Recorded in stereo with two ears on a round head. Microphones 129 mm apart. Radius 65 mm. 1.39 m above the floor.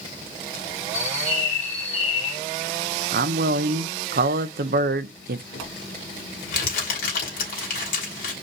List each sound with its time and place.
0.9 s a bird: 50° left (ahead or behind), 2.5 m
3.1 s a man speaking: 70° right (ahead or behind), 0.6 m
5.5 s crumpling: 70° left (ahead or behind), 3 m